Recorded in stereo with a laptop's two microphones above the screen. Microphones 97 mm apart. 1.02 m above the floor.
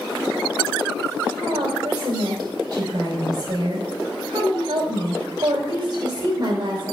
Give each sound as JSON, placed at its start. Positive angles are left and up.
{"t": 1.4, "sound": "a woman speaking", "side_deg": -45, "distance_m": 4.0}